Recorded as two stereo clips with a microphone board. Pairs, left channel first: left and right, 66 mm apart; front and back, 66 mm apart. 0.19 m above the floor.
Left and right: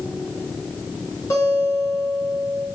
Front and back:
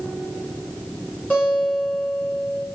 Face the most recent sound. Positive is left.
turn(degrees=65)